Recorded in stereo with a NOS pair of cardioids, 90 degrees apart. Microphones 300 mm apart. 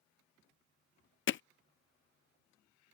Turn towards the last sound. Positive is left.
turn(degrees=40)